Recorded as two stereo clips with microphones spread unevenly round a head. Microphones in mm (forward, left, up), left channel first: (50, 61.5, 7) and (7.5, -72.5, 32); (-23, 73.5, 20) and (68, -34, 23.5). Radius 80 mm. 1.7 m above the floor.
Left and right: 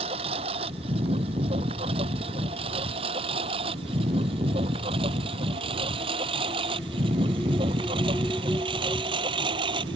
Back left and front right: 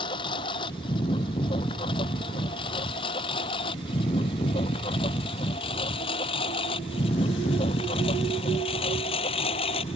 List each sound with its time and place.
0.0 s a lawn mower: 165° right; by 10.0 s 170° right